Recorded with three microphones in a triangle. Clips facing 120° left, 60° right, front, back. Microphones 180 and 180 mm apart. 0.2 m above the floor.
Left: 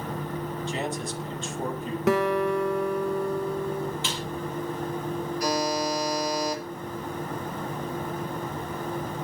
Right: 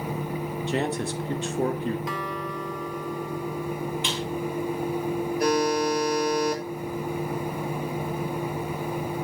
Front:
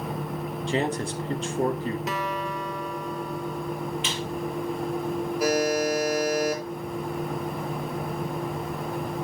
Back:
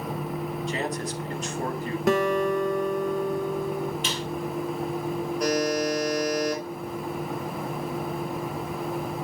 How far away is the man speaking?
About 2.5 m.